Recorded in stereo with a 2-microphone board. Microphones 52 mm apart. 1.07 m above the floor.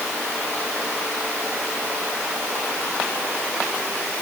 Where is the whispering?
I don't hear whispering.